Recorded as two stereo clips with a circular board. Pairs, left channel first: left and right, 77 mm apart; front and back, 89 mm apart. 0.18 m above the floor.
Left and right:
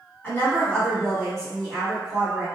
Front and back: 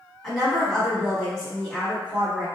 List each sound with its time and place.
0.2 s a woman speaking: 80° left, 1.6 m; by 2.5 s 40° right, 1.5 m